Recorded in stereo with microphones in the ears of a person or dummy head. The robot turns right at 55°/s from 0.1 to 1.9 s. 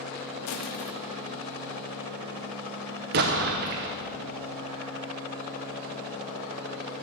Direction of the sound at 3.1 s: 35° right (ahead or behind).